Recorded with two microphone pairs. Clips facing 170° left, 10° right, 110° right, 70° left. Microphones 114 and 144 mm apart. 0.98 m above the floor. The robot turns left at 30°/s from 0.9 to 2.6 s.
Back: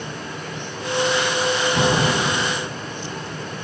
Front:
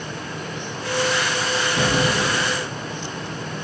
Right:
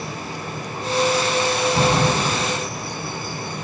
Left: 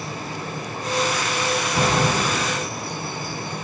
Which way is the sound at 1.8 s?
165° left.